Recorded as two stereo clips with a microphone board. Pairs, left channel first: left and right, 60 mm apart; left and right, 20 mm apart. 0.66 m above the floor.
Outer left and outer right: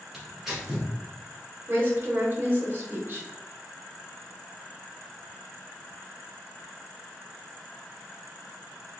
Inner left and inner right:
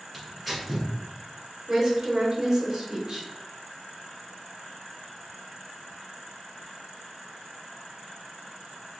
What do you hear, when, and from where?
0.1 s tearing paper: 5° right (ahead or behind), 1.8 m
1.7 s a woman speaking: 30° right (ahead or behind), 1.1 m